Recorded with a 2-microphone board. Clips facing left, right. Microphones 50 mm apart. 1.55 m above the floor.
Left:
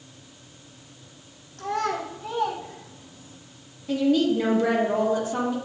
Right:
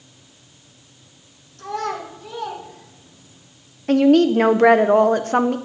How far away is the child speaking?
About 2.5 m.